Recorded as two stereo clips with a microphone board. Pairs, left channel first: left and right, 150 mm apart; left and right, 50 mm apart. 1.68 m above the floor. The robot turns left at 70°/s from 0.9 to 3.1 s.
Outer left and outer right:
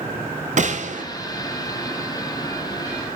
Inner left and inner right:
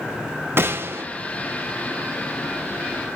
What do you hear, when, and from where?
0.6 s a gunshot: 55° right (ahead or behind), 1.1 m; by 1.0 s 60° right (ahead or behind), 1.1 m